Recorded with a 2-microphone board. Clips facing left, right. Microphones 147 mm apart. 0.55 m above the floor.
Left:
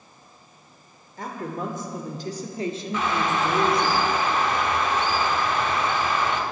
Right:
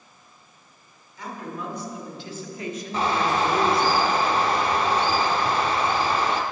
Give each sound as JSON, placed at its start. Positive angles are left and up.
{"t": 1.2, "sound": "a woman speaking", "side_deg": 50, "distance_m": 1.7}
{"t": 2.9, "sound": "a bird", "side_deg": -35, "distance_m": 0.9}